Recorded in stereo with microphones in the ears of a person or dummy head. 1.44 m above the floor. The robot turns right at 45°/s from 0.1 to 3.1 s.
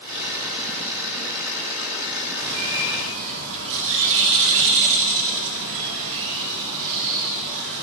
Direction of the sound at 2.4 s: 110° right.